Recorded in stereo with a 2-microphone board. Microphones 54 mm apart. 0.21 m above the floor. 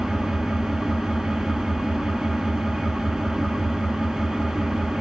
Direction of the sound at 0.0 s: 10° right (ahead or behind).